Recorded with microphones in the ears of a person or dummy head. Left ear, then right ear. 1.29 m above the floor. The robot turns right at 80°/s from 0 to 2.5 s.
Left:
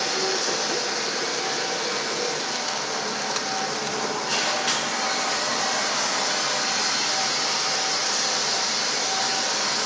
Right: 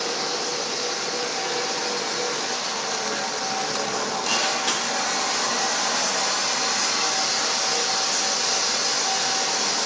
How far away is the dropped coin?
About 1.2 m.